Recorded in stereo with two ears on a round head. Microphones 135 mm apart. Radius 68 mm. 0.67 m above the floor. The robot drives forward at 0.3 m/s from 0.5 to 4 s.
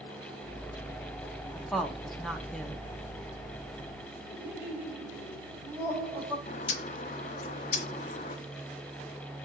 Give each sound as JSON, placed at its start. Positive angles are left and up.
{"t": 1.6, "sound": "a woman speaking", "side_deg": 0, "distance_m": 1.0}
{"t": 4.3, "sound": "laughter", "side_deg": -10, "distance_m": 4.0}
{"t": 6.5, "sound": "a bird", "side_deg": 50, "distance_m": 1.0}